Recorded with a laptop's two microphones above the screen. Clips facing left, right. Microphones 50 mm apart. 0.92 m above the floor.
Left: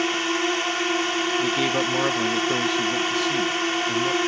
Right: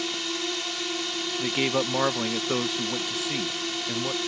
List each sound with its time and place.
0.0 s a drone: 50° left (ahead or behind)
1.4 s a man speaking: 10° right (ahead or behind)